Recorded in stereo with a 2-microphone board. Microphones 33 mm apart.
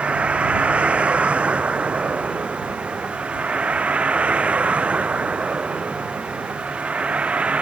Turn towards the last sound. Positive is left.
turn(degrees=-40)  # may be behind; listen again after turning